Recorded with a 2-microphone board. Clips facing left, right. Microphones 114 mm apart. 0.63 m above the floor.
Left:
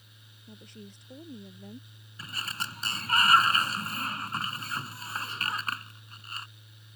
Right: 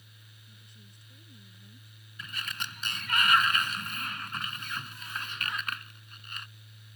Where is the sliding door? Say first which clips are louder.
Left 2 dB; 35° left (ahead or behind).